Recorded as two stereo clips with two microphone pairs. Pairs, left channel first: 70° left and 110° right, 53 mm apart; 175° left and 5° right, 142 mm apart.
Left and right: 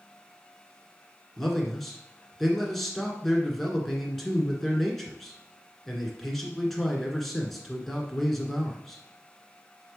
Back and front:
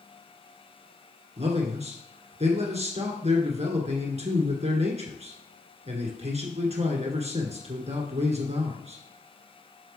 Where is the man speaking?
20° right, 1.7 m.